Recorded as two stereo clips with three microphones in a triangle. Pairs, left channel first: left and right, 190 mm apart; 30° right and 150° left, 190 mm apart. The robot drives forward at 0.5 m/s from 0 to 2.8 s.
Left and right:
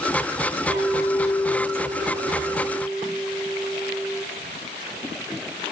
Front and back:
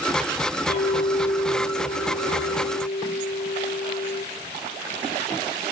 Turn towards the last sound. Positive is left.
turn(degrees=5)